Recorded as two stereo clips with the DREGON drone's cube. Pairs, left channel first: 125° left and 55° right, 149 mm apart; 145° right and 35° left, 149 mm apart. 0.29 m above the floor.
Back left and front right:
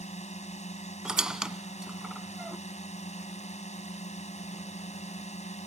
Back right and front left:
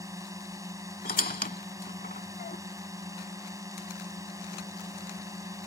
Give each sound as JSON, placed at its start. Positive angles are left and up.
{"t": 0.0, "sound": "a drone", "azimuth_deg": 100}
{"t": 1.1, "sound": "a squeak", "azimuth_deg": -140}